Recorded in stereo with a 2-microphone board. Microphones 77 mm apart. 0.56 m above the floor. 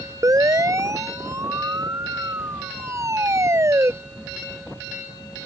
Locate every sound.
0.2 s a siren: 45° right (ahead or behind); by 3.9 s 40° right (ahead or behind)